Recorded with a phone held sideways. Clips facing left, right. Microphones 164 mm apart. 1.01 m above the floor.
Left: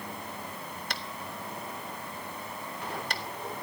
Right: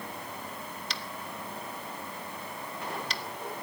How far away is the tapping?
About 1.3 m.